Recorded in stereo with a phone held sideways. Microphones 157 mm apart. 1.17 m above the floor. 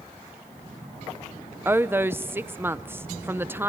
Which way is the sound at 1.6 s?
15° right (ahead or behind).